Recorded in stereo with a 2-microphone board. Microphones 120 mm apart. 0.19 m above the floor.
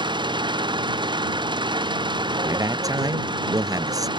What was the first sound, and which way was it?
An engine running, 40° right (ahead or behind).